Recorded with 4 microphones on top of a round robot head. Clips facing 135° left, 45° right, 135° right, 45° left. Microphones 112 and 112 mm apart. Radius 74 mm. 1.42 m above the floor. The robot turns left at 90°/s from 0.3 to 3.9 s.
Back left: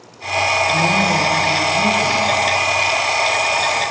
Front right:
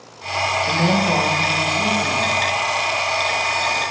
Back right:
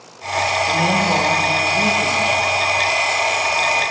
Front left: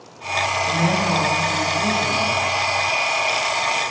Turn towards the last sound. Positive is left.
turn(degrees=25)